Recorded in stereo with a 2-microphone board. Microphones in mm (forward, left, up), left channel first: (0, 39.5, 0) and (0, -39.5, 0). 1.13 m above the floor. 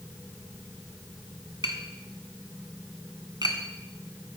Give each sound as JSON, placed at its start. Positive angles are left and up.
{"t": 1.6, "sound": "tapping", "side_deg": -60, "distance_m": 2.0}